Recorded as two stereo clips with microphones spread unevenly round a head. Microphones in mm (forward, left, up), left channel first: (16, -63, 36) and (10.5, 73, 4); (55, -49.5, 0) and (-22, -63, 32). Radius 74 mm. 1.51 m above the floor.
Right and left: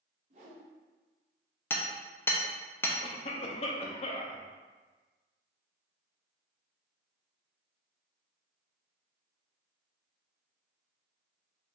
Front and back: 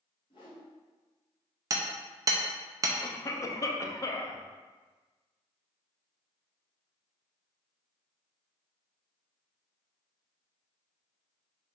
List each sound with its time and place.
0.3 s a whoosh: 65° left, 1.3 m
1.7 s hammering: 155° right, 0.5 m
3.0 s a cough: 45° right, 0.8 m